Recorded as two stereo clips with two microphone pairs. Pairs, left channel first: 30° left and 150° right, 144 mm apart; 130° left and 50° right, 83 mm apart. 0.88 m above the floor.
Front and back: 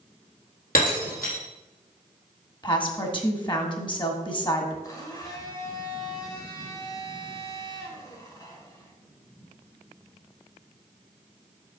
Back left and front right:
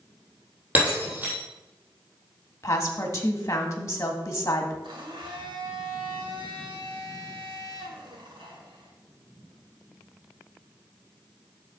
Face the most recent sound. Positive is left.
turn(degrees=-35)